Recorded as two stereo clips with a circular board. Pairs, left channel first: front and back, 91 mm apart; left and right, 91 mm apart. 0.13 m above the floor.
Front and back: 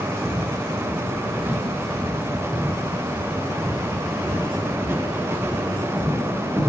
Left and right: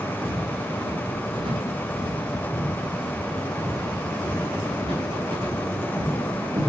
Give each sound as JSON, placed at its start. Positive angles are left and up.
{"t": 0.2, "sound": "footsteps", "azimuth_deg": -105, "distance_m": 6.5}